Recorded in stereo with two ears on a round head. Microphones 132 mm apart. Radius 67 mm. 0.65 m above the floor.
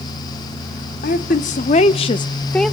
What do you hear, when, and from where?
1.0 s a woman speaking: 60° left (ahead or behind), 1.4 m; by 2.7 s 5° right (ahead or behind), 0.6 m